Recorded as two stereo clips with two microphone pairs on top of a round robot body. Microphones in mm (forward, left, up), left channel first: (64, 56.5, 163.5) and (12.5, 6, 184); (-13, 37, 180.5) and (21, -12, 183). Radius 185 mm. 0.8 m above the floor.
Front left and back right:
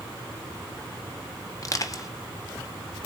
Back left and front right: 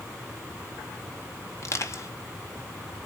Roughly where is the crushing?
Left.